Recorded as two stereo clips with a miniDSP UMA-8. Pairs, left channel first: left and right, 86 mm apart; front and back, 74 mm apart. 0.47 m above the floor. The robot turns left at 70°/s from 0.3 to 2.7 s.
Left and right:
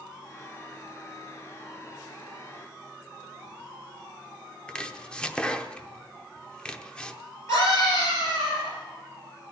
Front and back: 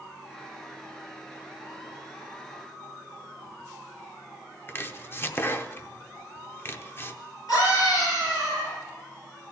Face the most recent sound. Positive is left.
turn(degrees=40)